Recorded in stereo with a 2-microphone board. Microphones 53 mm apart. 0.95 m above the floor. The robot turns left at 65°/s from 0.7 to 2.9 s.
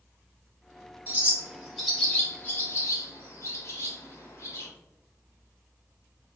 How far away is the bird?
About 1.0 m.